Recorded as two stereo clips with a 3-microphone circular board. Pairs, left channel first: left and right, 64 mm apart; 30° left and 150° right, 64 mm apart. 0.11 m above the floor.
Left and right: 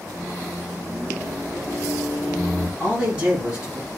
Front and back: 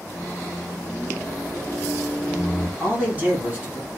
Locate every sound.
0.1 s a microwave: 35° right, 1.1 m
2.8 s a man speaking: 120° right, 1.6 m